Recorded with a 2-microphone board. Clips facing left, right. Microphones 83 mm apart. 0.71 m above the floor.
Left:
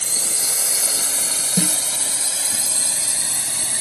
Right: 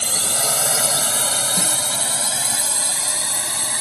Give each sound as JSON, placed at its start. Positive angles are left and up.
{"t": 0.0, "sound": "a drone", "side_deg": -70}
{"t": 1.6, "sound": "a snare drum", "side_deg": 55}